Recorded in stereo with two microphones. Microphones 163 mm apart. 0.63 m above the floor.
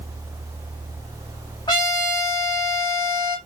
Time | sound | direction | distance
1.7 | a trumpet | 25° left (ahead or behind) | 1.2 m